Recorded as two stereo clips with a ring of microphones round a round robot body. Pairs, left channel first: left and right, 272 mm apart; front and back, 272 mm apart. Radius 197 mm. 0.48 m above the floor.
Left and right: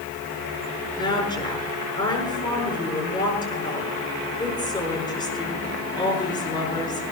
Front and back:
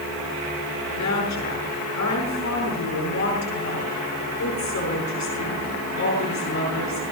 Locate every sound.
1.0 s a woman speaking: 15° left, 7 m